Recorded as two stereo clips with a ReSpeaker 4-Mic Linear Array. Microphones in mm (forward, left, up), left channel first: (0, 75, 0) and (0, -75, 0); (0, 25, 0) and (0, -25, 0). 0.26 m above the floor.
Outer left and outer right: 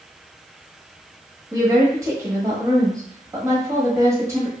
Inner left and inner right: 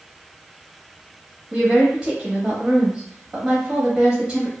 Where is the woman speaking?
20° right (ahead or behind), 1.0 m.